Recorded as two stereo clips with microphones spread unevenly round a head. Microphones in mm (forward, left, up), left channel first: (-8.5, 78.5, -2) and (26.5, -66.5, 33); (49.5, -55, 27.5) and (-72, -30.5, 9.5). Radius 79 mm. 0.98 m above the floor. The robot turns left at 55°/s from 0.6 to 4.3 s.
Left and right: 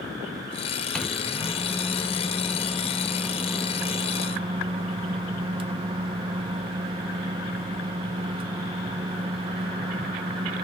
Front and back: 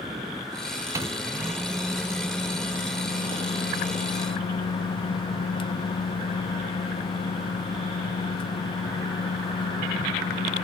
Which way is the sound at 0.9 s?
155° left.